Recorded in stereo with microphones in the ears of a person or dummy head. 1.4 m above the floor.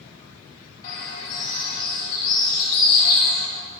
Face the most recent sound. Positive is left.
turn(degrees=35)  # may be behind; listen again after turning